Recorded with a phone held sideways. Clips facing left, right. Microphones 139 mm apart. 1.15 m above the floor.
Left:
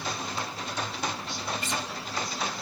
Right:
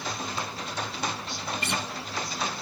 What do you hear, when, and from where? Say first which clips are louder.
1.6 s a guitar: right 1 dB; 60° right (ahead or behind), 0.8 m